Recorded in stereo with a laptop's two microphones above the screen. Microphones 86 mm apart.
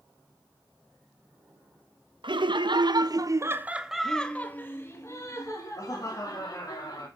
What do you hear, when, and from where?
2.2 s laughter: 65° right (ahead or behind), 1.1 m; by 7.1 s 45° left (ahead or behind), 2.5 m